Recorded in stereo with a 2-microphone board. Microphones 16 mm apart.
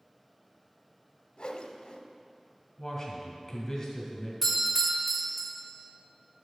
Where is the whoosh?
65° left (ahead or behind), 0.9 m.